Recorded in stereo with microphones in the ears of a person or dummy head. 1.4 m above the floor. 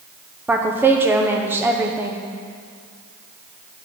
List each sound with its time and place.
0.5 s a woman speaking: 10° right (ahead or behind), 0.8 m